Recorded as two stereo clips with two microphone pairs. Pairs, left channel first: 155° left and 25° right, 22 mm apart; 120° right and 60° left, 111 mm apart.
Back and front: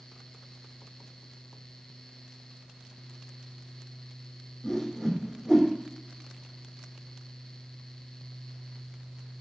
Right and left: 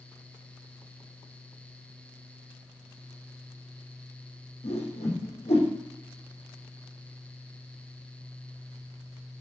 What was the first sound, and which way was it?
A whoosh, 130° right.